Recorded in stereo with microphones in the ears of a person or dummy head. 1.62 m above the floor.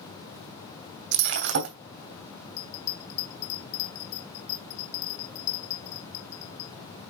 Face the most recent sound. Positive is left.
turn(degrees=80)